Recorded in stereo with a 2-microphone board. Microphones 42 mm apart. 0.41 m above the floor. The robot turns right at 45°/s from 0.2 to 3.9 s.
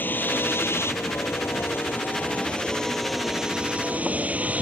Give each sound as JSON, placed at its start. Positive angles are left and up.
{"t": 0.0, "sound": "a vehicle", "azimuth_deg": 50}